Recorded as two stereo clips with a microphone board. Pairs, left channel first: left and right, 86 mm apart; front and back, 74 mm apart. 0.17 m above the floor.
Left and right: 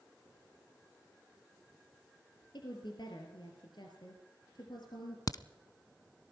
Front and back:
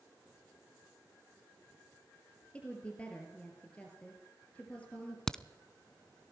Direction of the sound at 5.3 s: 80° left.